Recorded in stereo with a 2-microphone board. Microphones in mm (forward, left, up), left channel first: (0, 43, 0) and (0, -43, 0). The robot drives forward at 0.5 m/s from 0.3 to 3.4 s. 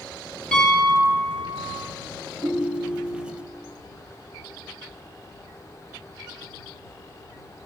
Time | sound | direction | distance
0.5 | a piano | 10° left (ahead or behind) | 1.6 m
2.4 | a ringtone | 75° left (ahead or behind) | 1.9 m